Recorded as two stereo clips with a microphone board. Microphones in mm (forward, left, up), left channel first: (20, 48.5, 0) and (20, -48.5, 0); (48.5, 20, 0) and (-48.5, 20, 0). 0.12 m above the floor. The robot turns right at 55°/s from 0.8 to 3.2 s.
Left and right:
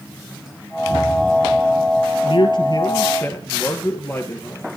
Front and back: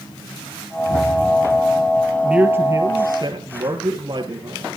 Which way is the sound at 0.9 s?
Straight ahead.